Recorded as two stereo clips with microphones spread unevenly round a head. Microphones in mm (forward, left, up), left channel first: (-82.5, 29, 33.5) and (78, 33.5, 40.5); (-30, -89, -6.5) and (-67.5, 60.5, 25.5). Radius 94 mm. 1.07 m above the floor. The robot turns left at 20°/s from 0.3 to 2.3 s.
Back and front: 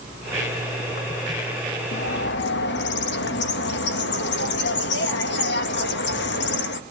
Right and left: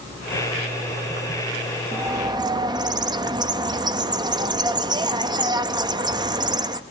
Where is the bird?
175° left, 0.9 m; by 6.8 s 170° left, 0.9 m.